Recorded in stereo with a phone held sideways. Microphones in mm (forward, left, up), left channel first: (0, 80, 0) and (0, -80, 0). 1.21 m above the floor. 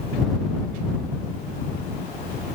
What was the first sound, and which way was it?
Only background noise.